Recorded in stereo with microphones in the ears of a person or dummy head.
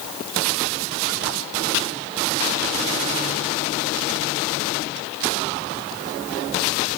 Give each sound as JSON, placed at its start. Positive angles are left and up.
{"t": 1.7, "sound": "chopping", "side_deg": 75, "distance_m": 0.8}